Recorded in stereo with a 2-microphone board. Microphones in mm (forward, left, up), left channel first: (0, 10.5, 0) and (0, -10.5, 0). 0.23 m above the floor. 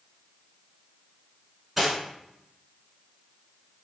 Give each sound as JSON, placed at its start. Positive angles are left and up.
{"t": 1.8, "sound": "cutlery clinking", "side_deg": -5, "distance_m": 1.4}